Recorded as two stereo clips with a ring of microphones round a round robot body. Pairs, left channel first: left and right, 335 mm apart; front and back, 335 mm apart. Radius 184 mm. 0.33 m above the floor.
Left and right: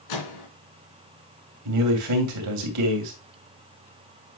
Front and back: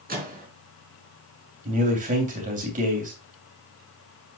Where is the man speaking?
115° right, 2.5 m.